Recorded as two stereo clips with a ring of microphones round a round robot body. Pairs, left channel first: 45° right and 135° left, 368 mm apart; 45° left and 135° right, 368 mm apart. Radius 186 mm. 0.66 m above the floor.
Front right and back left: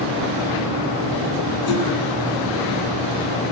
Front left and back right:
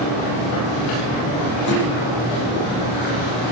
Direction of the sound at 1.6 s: 15° right.